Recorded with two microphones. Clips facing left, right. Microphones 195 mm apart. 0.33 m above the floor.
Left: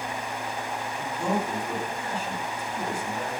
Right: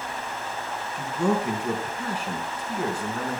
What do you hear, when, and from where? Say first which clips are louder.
0.9 s a man speaking: right 4 dB; 70° right (ahead or behind), 4 m